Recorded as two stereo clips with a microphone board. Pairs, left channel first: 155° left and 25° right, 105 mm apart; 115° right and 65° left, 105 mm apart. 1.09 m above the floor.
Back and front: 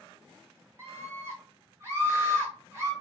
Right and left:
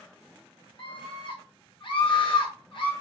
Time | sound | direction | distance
0.8 | a scream | 85° right | 1.4 m